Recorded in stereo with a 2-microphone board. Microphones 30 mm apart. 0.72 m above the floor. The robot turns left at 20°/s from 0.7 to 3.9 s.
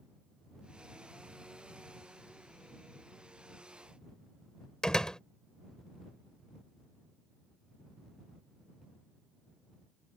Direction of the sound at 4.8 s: 20° left (ahead or behind).